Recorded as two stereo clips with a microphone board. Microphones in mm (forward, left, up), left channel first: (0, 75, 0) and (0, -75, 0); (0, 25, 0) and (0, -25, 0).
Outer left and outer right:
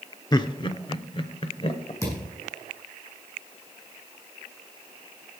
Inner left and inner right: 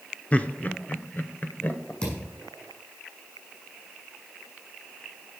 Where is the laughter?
30° left (ahead or behind), 0.9 m; by 1.9 s 40° left (ahead or behind), 1.7 m.